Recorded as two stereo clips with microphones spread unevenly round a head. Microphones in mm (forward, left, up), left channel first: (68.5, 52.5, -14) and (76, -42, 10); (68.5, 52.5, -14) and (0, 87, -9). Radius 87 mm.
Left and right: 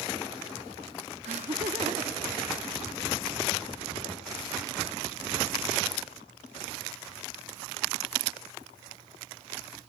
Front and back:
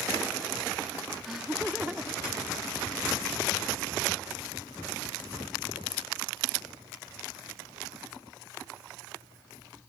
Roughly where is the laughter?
Behind right.